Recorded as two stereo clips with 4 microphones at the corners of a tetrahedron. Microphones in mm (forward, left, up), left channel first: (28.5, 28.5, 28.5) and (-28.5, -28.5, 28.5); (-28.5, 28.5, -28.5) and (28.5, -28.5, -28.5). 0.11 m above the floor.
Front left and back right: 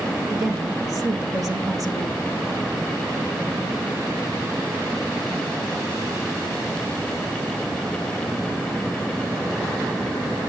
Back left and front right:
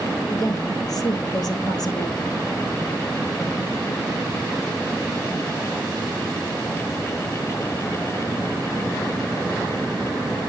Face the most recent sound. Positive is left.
turn(degrees=140)